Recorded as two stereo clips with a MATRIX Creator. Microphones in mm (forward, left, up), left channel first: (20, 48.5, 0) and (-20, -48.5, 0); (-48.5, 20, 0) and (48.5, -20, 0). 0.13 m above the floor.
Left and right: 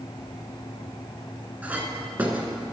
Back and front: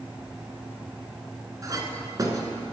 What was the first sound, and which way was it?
A clink, 45° right.